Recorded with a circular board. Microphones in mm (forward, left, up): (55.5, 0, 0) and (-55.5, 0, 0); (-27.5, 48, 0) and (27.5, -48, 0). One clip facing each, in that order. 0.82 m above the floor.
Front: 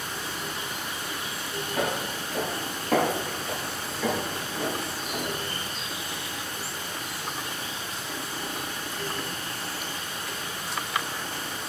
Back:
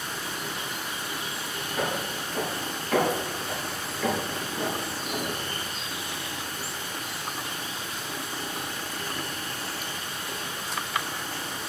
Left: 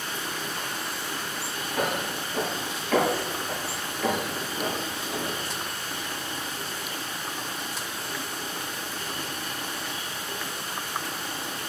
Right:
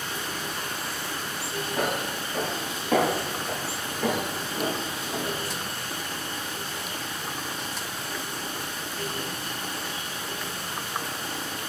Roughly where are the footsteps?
Ahead.